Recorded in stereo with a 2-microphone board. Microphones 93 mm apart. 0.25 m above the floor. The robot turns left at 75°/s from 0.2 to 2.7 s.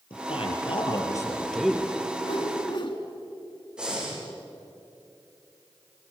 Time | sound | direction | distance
0.1 | a man speaking | 105° left | 6.5 m
2.2 | a whoosh | 115° left | 2.5 m
3.8 | breathing | 10° right (ahead or behind) | 7 m